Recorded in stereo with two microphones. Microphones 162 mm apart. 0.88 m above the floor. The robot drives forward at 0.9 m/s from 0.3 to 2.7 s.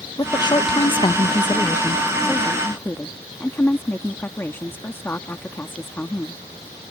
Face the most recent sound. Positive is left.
turn(degrees=15)  # may be behind; listen again after turning